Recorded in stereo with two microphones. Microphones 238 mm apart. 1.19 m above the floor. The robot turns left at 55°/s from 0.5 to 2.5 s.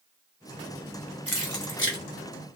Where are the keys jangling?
65° left (ahead or behind), 1.0 m; by 2.0 s 45° left (ahead or behind), 1.0 m.